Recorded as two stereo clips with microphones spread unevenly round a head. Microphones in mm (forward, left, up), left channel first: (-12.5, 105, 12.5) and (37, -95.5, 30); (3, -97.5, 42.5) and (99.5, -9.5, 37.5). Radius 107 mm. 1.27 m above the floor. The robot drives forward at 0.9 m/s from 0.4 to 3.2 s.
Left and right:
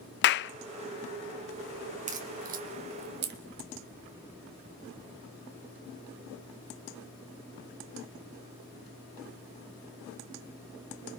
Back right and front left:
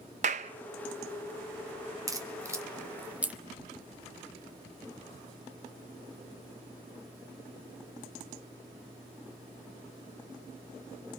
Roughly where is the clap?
Left.